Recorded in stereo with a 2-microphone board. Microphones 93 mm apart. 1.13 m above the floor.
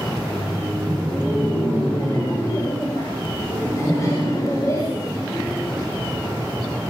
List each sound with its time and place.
0.1 s laughter: 20° left (ahead or behind), 9.5 m; by 5.8 s 40° left (ahead or behind), 7 m